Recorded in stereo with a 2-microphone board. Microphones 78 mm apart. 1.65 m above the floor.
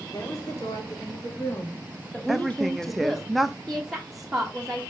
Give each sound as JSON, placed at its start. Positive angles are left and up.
{"t": 0.1, "sound": "a woman speaking", "side_deg": 45, "distance_m": 5.0}
{"t": 2.3, "sound": "a woman speaking", "side_deg": 0, "distance_m": 0.6}
{"t": 3.7, "sound": "a woman speaking", "side_deg": 0, "distance_m": 2.0}